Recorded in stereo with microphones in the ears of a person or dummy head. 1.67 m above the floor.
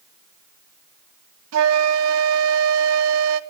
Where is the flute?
85° right, 0.8 m.